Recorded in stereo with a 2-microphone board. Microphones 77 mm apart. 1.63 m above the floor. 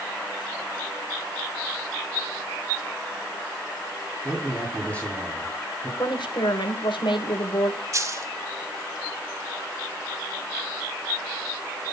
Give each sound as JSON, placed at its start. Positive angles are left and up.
{"t": 4.2, "sound": "a man speaking", "side_deg": 20, "distance_m": 3.5}
{"t": 6.0, "sound": "a woman speaking", "side_deg": 80, "distance_m": 1.6}
{"t": 7.9, "sound": "a dropped coin", "side_deg": -40, "distance_m": 1.5}